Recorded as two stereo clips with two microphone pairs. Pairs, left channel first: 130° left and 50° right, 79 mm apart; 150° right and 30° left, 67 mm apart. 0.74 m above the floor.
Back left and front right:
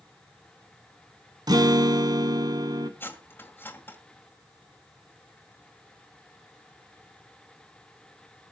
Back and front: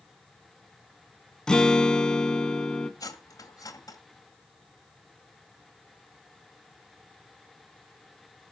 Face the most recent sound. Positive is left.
turn(degrees=-170)